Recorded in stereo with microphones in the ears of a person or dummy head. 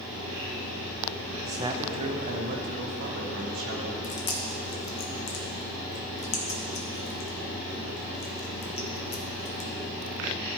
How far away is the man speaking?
About 0.8 m.